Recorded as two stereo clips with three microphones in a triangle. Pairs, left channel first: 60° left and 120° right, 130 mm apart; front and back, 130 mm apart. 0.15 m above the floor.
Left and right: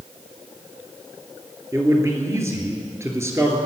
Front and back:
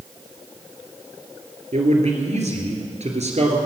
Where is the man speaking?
175° left, 2.5 m.